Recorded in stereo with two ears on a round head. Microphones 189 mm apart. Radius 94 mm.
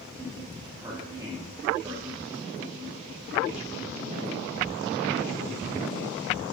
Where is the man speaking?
20° right (ahead or behind), 3 m.